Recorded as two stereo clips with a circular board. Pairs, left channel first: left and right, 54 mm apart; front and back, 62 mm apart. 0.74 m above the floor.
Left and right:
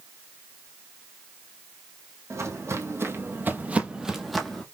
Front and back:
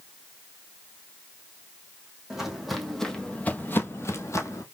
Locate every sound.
2.3 s footsteps: 100° right, 1.5 m; by 4.6 s 10° left, 1.2 m